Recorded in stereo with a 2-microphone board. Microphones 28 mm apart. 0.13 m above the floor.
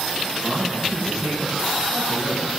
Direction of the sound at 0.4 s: 45° right (ahead or behind).